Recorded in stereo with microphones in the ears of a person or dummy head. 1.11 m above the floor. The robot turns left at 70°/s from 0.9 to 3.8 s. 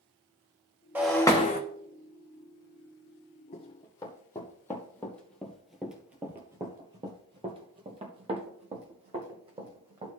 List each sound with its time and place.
0.9 s breaking glass: 170° right, 1.0 m; by 1.6 s 145° left, 1.0 m
3.5 s running footsteps: 35° left (ahead or behind), 2 m; by 10.1 s 30° right (ahead or behind), 2.5 m